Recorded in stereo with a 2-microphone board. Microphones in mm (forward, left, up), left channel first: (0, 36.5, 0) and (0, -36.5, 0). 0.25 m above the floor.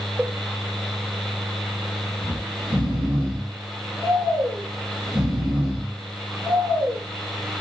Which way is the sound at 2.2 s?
15° right (ahead or behind).